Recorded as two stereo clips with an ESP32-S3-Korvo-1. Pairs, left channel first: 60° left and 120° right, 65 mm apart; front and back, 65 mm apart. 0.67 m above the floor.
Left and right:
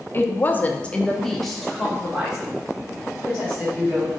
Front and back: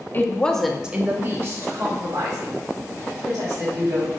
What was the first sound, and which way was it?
A woman speaking, 30° left.